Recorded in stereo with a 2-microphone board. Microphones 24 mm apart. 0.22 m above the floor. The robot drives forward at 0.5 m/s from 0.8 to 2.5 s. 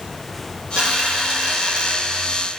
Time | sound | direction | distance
0.8 | a dropped coin | 55° right (ahead or behind) | 5 m